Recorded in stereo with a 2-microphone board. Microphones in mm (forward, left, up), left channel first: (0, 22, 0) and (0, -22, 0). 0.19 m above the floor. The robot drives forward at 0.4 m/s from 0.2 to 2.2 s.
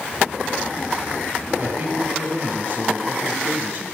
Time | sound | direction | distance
1.6 | a man speaking | 50° right (ahead or behind) | 6 m